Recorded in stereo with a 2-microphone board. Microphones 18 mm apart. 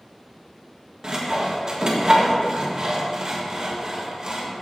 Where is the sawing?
45° right (ahead or behind), 1.4 m.